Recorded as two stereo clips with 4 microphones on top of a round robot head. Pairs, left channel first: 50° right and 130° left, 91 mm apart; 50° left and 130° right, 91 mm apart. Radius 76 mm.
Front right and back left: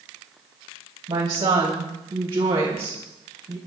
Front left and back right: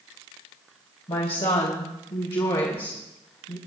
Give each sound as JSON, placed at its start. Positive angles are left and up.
{"t": 1.1, "sound": "a woman speaking", "azimuth_deg": 85, "distance_m": 3.0}